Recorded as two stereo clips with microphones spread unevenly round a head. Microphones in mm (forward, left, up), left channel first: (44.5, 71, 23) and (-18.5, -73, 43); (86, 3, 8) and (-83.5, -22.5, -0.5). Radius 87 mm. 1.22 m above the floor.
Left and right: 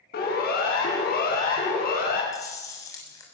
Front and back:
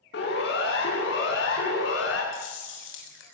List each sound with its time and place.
0.1 s a siren: 35° left, 8.5 m
2.3 s chewing: 5° right, 6.5 m